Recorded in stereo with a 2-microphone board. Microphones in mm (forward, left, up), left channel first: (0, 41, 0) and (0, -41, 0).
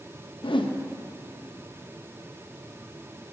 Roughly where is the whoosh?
Left.